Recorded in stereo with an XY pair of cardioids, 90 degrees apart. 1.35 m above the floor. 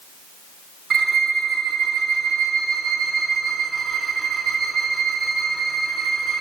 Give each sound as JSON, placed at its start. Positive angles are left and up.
{"t": 0.9, "sound": "a violin", "azimuth_deg": -65, "distance_m": 2.5}